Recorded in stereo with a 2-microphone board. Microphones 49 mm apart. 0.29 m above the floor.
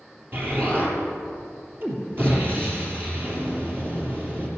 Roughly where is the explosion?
Right.